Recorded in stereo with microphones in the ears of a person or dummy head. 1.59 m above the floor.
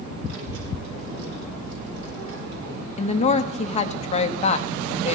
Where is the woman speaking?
30° left (ahead or behind), 1.0 m.